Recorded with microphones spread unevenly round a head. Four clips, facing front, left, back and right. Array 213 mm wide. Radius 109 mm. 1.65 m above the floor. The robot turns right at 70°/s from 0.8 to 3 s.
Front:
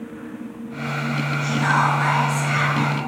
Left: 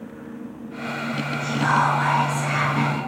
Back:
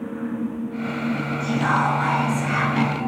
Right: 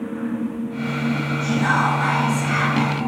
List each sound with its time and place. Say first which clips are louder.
1.4 s whispering: even, front 1 dB; 140° left, 1.5 m; by 3.1 s 110° right, 1.5 m